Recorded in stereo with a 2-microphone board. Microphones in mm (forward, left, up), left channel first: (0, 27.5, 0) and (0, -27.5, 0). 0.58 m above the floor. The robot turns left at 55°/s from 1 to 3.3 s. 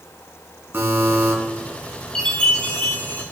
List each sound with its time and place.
0.7 s a buzzer: 40° right (ahead or behind), 3 m; by 1.3 s 20° right (ahead or behind), 3 m
2.1 s a chime: 160° left, 1.6 m; by 3.2 s 100° left, 1.6 m